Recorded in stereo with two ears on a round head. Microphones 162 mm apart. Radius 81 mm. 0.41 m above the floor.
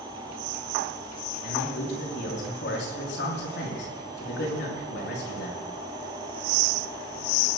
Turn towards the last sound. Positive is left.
turn(degrees=70)  # may be behind; listen again after turning